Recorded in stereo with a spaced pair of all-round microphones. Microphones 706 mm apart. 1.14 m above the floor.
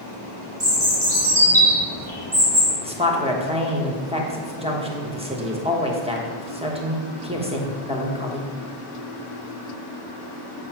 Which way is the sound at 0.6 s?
35° right (ahead or behind).